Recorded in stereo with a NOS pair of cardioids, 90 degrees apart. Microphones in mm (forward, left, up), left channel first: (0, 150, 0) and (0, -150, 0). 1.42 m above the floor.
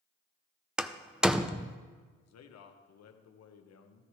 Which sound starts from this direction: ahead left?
A man speaking, at 2.2 s.